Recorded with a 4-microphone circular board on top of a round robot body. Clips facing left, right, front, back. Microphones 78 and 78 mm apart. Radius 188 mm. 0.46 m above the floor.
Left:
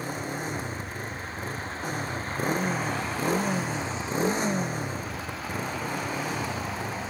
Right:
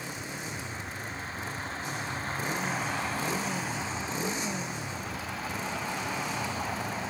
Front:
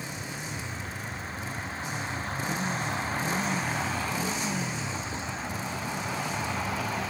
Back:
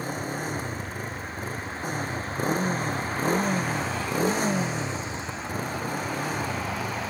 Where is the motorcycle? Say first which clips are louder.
Left 6 dB, back 7 dB; 135° left.